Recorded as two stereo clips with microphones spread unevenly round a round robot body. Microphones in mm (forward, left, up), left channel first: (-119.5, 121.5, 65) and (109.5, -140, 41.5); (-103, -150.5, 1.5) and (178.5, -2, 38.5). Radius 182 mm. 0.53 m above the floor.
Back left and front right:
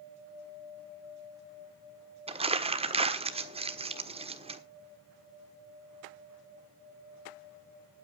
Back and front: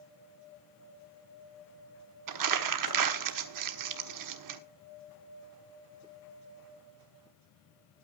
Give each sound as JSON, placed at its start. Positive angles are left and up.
{"t": 2.3, "sound": "crumpling", "azimuth_deg": 20, "distance_m": 1.4}